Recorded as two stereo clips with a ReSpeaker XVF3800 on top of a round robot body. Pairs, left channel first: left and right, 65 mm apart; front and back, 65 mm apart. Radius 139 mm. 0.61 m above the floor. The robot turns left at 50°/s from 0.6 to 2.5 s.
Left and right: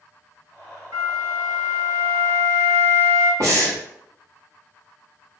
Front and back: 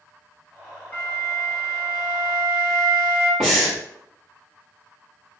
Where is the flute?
50° right, 1.2 m; by 3.3 s 130° right, 1.2 m.